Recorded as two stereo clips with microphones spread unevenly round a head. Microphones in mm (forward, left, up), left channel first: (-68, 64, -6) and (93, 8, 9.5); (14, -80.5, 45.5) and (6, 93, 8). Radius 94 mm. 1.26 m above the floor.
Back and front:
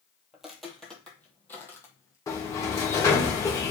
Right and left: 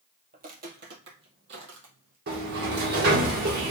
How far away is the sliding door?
About 1.6 m.